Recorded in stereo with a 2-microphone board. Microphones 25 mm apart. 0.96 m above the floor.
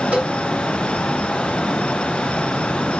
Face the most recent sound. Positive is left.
turn(degrees=-65)  # may be behind; listen again after turning